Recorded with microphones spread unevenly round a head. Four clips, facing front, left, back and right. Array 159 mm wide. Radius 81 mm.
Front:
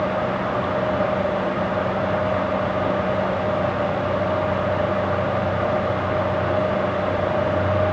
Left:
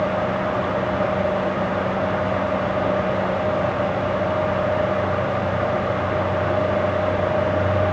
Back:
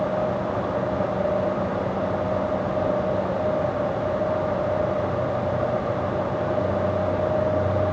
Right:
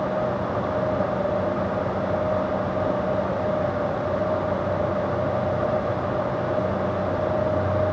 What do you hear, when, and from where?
Only background noise.